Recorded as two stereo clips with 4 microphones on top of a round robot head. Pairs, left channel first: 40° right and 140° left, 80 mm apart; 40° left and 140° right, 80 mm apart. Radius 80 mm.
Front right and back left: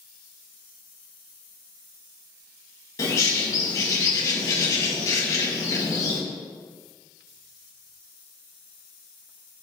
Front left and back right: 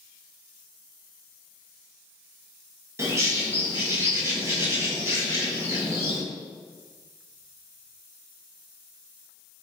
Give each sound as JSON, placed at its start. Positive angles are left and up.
{"t": 3.0, "sound": "a bird", "azimuth_deg": -85, "distance_m": 1.8}